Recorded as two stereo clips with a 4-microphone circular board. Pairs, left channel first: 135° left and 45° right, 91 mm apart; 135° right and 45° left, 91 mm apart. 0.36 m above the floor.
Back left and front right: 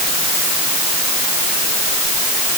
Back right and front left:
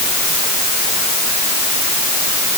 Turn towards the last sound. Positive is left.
No sound to turn to.